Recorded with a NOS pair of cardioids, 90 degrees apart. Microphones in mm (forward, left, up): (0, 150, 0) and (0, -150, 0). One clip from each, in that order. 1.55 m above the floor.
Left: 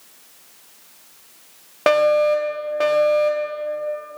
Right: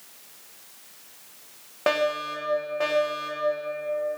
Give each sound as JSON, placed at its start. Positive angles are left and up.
{"t": 1.9, "sound": "a fire alarm", "azimuth_deg": 40, "distance_m": 2.5}